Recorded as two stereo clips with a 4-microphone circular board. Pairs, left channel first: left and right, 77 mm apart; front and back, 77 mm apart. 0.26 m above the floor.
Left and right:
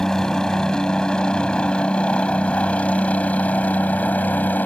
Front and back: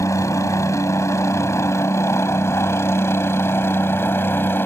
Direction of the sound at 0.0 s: 10° left.